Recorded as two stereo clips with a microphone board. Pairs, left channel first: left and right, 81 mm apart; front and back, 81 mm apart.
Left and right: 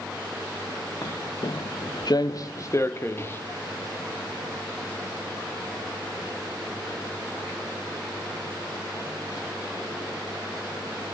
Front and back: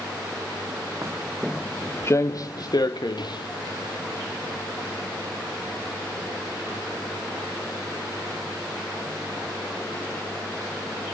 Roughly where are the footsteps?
Behind left.